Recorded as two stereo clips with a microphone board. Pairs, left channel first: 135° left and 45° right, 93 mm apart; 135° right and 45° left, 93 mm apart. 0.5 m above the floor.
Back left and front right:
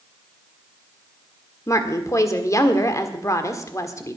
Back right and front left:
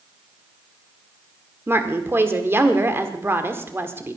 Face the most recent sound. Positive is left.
turn(degrees=100)